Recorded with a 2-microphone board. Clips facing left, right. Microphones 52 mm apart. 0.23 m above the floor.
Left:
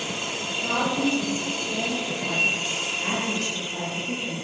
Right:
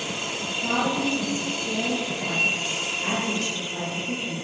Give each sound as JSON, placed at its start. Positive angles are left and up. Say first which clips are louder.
{"t": 0.4, "sound": "a woman speaking", "louder": "right 1 dB", "side_deg": -70, "distance_m": 5.0}